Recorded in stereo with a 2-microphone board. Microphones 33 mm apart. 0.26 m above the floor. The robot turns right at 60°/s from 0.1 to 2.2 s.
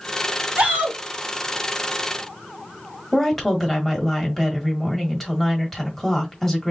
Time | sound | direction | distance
0.6 | a shout | 40° right (ahead or behind) | 1.8 m
3.1 | a woman speaking | 10° left (ahead or behind) | 1.4 m